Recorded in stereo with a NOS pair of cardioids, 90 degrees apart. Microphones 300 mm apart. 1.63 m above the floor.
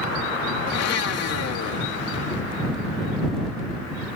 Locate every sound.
0.7 s a blender: 55° left